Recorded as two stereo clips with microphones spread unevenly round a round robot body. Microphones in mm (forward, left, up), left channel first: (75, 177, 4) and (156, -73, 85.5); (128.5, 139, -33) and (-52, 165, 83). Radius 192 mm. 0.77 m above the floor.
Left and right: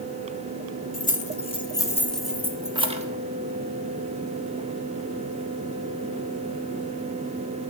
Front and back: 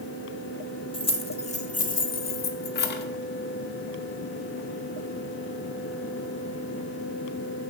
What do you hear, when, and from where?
0.9 s keys jangling: 50° left, 1.4 m; by 3.1 s 5° right, 1.1 m